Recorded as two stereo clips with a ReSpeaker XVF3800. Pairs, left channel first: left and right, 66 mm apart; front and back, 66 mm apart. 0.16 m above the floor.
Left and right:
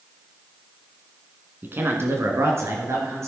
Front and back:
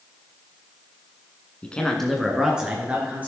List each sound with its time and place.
1.6 s a man speaking: 60° right, 1.8 m; by 3.3 s 120° right, 3 m